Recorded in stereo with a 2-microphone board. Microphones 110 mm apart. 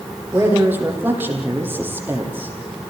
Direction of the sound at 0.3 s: 20° right (ahead or behind).